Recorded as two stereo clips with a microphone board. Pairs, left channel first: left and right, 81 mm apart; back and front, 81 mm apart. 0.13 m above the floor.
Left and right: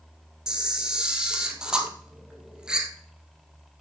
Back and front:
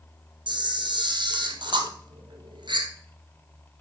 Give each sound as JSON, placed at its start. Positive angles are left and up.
{"t": 0.5, "sound": "a camera shutter", "azimuth_deg": -10, "distance_m": 1.7}